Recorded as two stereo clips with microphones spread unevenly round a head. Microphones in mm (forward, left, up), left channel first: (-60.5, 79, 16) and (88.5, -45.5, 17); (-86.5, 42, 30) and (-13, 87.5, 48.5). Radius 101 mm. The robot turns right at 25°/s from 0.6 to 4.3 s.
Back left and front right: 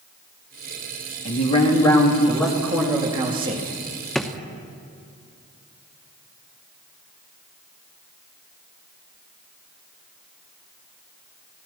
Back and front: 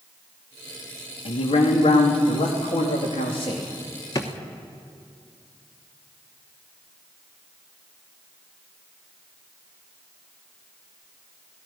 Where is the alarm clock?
I don't hear an alarm clock.